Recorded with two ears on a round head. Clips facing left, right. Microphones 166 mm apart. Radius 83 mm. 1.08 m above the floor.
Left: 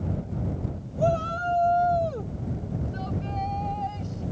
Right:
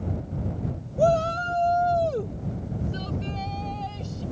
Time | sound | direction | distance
1.0 | a shout | 50° right (ahead or behind) | ?